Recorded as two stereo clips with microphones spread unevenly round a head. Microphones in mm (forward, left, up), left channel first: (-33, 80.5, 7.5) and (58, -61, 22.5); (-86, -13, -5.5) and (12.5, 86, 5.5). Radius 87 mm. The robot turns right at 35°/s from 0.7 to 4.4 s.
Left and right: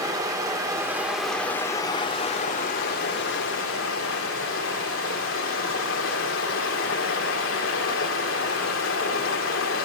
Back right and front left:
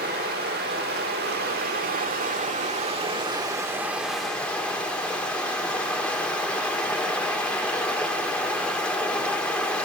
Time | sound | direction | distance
0.0 | running water | 15° left | 2 m